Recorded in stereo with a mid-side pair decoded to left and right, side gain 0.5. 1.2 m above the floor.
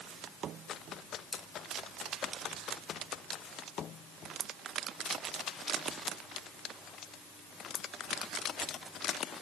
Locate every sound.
1.3 s scissors: 30° left, 9.5 m